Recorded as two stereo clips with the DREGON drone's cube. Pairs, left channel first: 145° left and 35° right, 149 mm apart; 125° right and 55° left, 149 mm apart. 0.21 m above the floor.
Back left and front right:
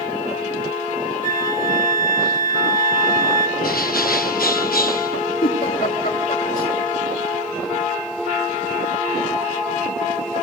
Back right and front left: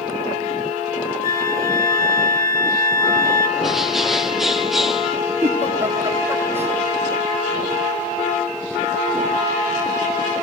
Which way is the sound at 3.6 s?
145° left.